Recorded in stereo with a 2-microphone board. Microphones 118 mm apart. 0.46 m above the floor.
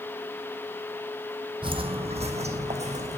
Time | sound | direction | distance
1.6 | footsteps | 45° right (ahead or behind) | 0.8 m